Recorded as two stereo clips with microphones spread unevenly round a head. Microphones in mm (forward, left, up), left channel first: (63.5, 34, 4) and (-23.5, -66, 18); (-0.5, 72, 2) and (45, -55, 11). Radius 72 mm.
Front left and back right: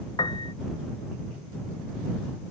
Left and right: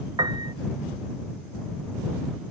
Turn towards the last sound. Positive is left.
turn(degrees=-10)